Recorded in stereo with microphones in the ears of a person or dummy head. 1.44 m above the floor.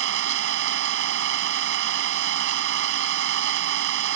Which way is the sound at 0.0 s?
80° right.